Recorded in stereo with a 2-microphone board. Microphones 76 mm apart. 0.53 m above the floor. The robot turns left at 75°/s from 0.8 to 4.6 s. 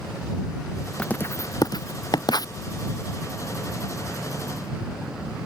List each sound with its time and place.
1.0 s writing: 10° left (ahead or behind); by 2.5 s 50° left (ahead or behind)